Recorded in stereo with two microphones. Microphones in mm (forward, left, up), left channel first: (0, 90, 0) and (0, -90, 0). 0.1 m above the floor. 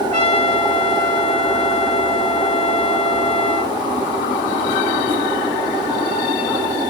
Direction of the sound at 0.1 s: 35° right (ahead or behind).